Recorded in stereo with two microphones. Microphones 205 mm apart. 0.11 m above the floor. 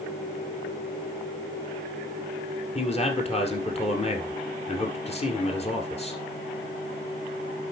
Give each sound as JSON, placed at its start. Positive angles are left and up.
{"t": 2.8, "sound": "a man speaking", "side_deg": 30, "distance_m": 2.0}